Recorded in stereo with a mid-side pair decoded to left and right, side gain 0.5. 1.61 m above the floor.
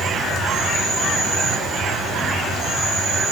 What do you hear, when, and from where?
0.0 s an insect: 65° right, 1.2 m